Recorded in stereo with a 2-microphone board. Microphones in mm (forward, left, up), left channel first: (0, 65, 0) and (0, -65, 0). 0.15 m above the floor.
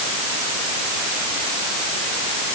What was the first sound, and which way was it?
Only background noise.